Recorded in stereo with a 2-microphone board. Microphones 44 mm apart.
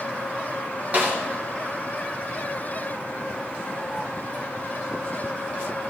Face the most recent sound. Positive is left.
turn(degrees=-40)  # may be behind; listen again after turning